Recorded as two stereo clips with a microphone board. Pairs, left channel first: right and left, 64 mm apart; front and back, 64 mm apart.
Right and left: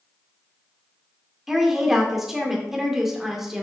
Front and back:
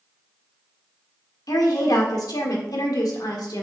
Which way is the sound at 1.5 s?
5° left.